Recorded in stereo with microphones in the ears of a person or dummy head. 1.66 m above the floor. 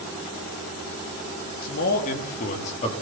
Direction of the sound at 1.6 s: 50° left (ahead or behind).